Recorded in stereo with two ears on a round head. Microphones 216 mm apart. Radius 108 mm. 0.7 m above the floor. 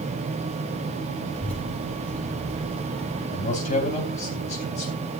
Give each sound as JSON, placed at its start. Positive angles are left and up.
{"t": 1.4, "sound": "a child speaking", "side_deg": 5, "distance_m": 5.5}
{"t": 3.3, "sound": "a man speaking", "side_deg": 30, "distance_m": 3.5}